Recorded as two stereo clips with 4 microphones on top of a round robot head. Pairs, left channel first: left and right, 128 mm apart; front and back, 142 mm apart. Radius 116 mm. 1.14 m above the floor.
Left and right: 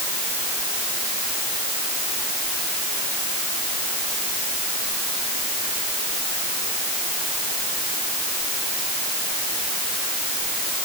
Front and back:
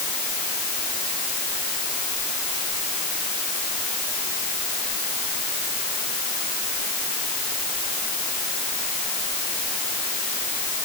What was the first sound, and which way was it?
Only background noise.